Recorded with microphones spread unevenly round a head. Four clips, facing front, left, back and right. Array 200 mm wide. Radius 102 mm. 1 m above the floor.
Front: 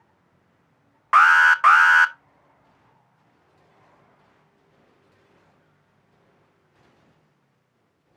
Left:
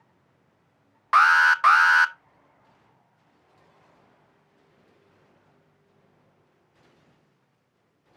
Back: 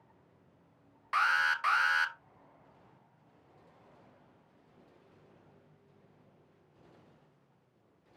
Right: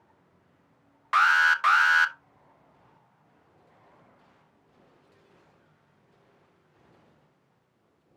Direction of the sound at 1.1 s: 25° left.